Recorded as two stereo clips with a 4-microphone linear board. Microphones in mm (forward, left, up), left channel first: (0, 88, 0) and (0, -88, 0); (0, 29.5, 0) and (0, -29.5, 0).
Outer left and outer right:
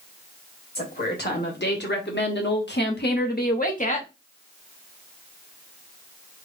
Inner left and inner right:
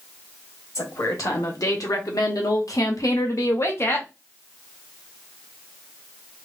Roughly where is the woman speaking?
Left.